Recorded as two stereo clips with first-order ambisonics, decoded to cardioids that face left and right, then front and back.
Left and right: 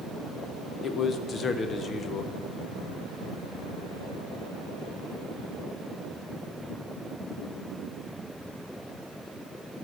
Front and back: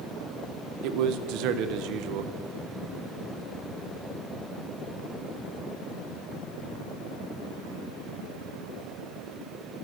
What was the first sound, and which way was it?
A man speaking, 155° left.